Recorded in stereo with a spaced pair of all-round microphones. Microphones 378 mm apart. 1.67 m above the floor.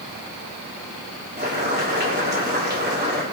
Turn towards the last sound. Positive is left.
turn(degrees=-25)  # may be behind; listen again after turning